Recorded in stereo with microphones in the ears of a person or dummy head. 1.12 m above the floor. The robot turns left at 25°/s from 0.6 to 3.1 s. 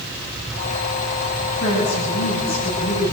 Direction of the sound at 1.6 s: 105° left.